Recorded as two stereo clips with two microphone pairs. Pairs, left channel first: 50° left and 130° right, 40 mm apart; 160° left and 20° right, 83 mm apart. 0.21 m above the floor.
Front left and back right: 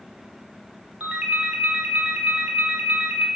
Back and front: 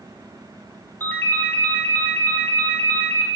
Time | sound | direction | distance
1.0 | a ringtone | 150° right | 0.6 m